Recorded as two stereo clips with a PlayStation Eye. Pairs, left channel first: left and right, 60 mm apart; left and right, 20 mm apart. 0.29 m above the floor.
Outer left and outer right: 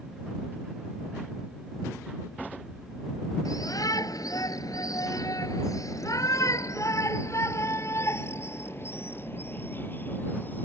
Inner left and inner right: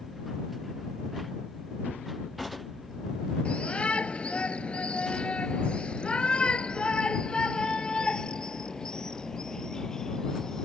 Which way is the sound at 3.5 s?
75° left (ahead or behind).